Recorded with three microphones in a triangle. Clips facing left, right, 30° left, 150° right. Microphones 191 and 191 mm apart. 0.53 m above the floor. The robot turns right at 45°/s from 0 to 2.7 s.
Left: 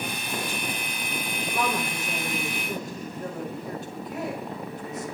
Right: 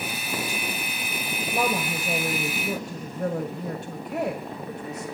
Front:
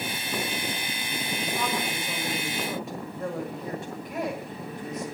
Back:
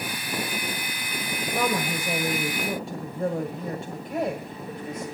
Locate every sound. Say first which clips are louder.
1.5 s a woman speaking: right 3 dB, back 6 dB; 145° right, 1.9 m; by 5.0 s 95° right, 1.9 m